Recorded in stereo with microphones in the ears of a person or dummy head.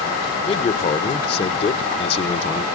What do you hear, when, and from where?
0.4 s a man speaking: 30° left (ahead or behind), 0.8 m